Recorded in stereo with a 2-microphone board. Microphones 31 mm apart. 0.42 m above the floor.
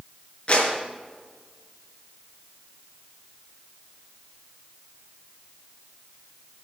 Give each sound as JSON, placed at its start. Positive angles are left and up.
{"t": 0.5, "sound": "a clap", "side_deg": 40, "distance_m": 5.5}